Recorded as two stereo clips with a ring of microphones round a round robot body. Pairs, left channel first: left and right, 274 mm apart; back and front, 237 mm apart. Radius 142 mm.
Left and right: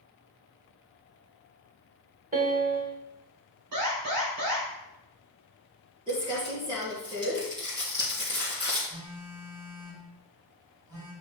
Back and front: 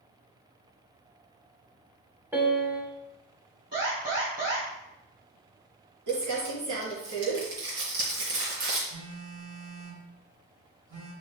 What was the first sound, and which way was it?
A piano, 75° right.